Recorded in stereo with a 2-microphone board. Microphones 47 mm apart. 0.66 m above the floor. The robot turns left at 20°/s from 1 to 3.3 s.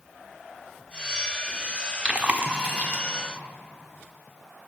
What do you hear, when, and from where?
2.0 s chewing: 20° right (ahead or behind), 0.8 m; by 3.0 s 40° right (ahead or behind), 0.8 m